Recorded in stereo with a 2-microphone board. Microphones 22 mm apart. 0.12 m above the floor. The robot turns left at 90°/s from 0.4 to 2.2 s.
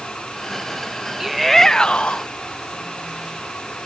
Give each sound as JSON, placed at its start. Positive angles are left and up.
{"t": 1.2, "sound": "a shout", "azimuth_deg": -160}